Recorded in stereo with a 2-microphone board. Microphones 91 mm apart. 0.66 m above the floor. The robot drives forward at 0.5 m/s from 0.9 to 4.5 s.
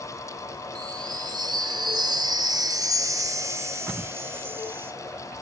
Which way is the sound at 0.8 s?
45° right (ahead or behind).